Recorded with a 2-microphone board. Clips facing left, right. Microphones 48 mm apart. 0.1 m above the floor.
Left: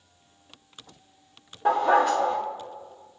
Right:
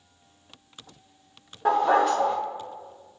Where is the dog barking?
15° right (ahead or behind), 2.5 m.